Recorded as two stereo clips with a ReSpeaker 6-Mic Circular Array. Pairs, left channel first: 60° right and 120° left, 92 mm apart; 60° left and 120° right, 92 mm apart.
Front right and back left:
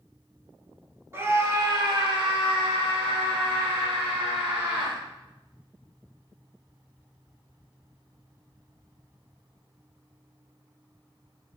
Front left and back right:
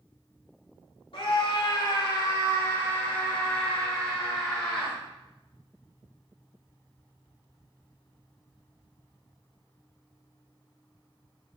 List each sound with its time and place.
1.1 s a scream: 60° left, 2.5 m; by 5.0 s 150° left, 5.5 m